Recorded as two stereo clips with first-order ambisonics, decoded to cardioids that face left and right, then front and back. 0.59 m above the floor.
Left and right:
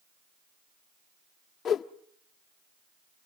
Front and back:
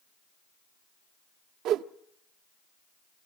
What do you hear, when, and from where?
1.6 s a whoosh: 150° left, 1.1 m